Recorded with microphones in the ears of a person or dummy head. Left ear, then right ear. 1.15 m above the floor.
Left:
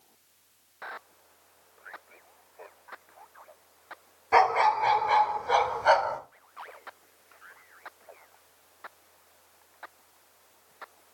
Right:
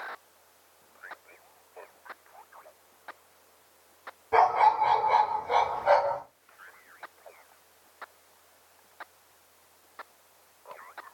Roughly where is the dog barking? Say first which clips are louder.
Even; left.